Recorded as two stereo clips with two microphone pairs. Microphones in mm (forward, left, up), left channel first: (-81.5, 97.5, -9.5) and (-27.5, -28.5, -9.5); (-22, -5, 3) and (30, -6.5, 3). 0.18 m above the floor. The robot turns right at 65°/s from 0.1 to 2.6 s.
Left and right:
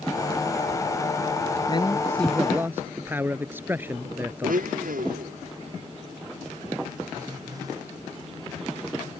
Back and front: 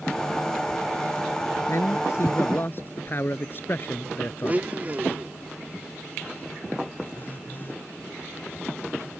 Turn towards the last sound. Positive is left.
turn(degrees=-130)